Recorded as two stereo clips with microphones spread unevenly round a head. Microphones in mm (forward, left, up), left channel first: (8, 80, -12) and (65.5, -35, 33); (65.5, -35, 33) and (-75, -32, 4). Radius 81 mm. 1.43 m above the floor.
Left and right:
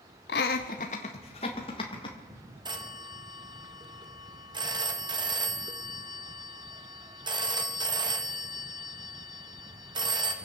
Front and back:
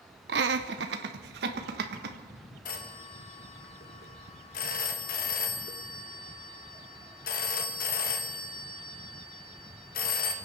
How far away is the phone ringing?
About 1.4 m.